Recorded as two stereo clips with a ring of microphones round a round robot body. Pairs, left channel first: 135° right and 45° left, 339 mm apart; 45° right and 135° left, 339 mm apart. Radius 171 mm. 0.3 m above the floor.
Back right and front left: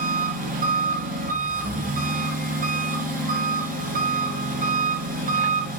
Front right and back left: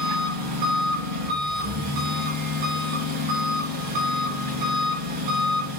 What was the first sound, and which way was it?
An engine running, 110° left.